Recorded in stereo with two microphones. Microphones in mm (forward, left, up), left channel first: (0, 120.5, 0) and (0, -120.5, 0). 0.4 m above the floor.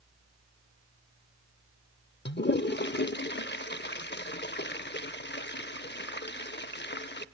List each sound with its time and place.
2.2 s a toilet flushing: 45° left (ahead or behind), 0.6 m